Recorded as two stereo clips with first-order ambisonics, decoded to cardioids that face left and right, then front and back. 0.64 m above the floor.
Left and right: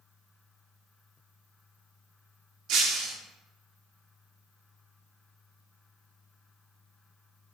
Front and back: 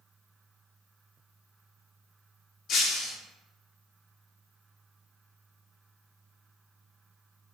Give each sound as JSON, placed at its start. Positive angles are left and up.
{"t": 2.7, "sound": "breaking glass", "azimuth_deg": -55, "distance_m": 0.6}